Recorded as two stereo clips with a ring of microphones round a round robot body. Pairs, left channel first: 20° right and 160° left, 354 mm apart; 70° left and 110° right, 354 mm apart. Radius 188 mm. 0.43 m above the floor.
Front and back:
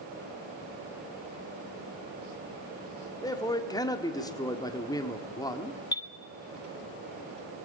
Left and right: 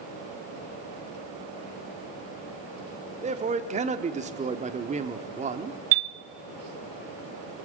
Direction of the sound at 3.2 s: 85° right.